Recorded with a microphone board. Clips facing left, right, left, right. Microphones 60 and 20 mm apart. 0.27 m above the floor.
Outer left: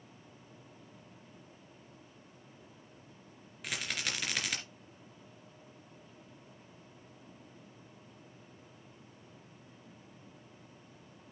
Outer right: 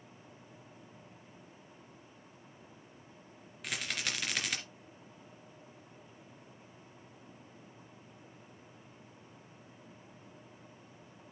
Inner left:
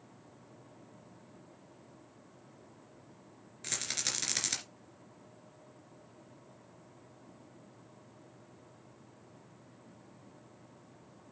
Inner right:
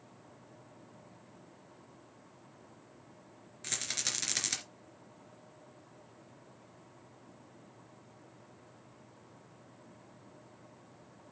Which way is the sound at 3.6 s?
Centre (ahead or behind).